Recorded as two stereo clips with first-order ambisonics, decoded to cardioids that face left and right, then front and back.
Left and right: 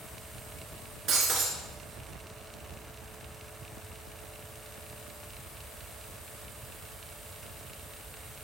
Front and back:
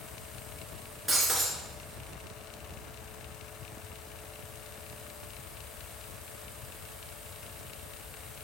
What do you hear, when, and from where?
1.1 s breaking glass: 100° right, 1.5 m